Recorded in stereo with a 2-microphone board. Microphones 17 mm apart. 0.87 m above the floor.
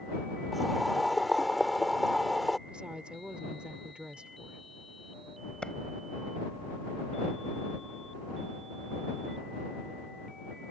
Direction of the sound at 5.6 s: 65° left (ahead or behind).